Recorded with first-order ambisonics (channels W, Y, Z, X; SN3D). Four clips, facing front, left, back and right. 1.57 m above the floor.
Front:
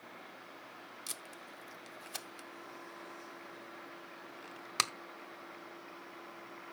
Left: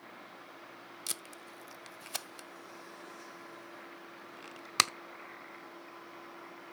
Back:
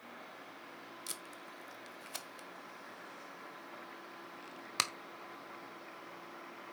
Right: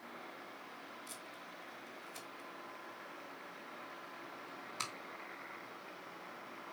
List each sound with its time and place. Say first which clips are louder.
1.1 s tape being pulled: left 6 dB, front 1 dB; 85° left, 0.5 m